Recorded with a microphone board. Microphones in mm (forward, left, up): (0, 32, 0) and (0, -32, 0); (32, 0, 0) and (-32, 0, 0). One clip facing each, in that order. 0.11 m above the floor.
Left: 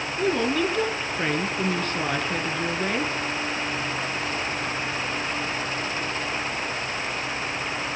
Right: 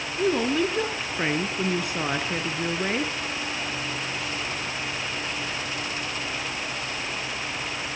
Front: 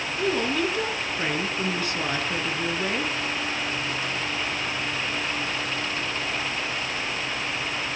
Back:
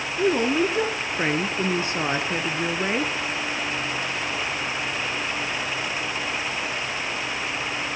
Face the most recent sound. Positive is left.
turn(degrees=-155)